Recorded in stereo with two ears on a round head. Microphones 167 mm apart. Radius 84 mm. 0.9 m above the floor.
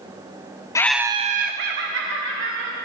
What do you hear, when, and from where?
0.8 s laughter: 20° left (ahead or behind), 0.6 m; by 2.8 s 70° right (ahead or behind), 2 m